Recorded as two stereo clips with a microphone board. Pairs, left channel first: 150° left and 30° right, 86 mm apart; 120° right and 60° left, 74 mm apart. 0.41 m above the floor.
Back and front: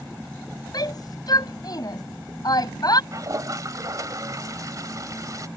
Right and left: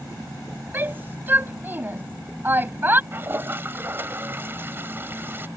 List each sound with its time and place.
0.7 s a shout: 120° left
3.1 s a toilet flushing: 5° left